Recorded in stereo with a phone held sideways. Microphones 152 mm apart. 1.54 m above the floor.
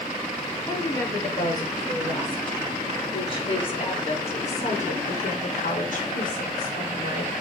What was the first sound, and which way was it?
A woman speaking, 20° left (ahead or behind).